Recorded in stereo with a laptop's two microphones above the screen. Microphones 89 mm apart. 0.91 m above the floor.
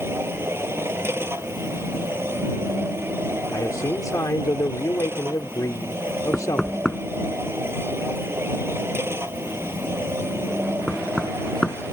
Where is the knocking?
Centre (ahead or behind).